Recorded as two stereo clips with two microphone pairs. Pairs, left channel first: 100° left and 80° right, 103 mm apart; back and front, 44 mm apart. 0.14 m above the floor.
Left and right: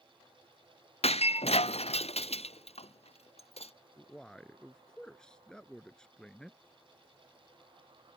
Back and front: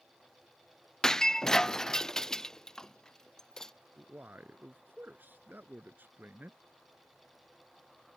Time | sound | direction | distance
1.0 | breaking glass | 100° left | ?
4.0 | a man speaking | 20° left | ?